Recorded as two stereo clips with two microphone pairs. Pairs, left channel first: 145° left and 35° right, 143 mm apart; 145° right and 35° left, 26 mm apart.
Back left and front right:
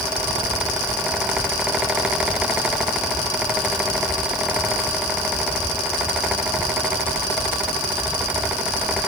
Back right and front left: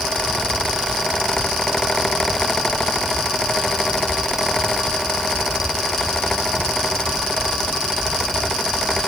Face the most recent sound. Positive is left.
No sound to turn to.